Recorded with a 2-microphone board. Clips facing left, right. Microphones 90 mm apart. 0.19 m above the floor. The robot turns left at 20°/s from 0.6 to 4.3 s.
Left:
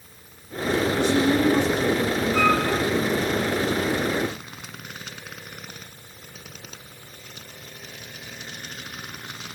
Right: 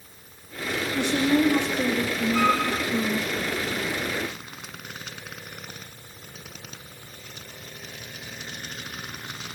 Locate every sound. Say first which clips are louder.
0.9 s a woman speaking: right 1 dB; 70° right, 8 m; by 3.3 s 115° right, 8 m
2.3 s a flute: left 1 dB; 50° right (ahead or behind), 3.5 m; by 2.6 s 40° right (ahead or behind), 3.5 m